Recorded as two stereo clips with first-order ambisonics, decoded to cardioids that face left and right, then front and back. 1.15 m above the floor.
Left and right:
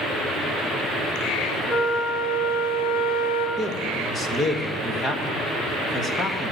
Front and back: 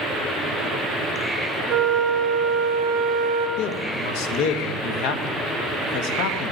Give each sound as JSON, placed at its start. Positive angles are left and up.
{"t": 1.7, "sound": "a flute", "azimuth_deg": 105, "distance_m": 1.9}
{"t": 3.6, "sound": "a man speaking", "azimuth_deg": 15, "distance_m": 1.4}